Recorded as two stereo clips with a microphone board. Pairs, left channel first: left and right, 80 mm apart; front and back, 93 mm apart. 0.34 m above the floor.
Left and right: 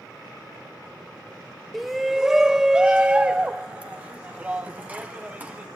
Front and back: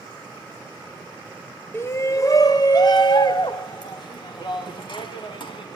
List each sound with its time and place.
1.7 s a shout: 5° left, 0.9 m; by 5.7 s 20° right, 2.5 m